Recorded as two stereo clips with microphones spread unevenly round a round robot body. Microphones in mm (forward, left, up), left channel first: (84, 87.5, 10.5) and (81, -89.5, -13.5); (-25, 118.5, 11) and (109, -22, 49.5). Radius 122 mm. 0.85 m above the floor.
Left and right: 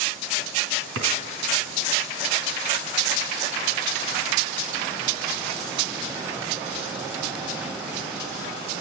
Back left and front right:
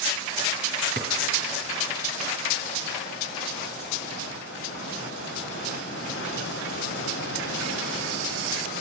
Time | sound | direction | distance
0.9 | a drawer | 120° right | 2 m